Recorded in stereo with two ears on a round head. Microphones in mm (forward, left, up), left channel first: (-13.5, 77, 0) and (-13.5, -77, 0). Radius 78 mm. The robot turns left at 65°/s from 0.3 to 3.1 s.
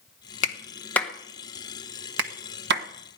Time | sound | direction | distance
0.4 | a clap | 45° left (ahead or behind) | 1.4 m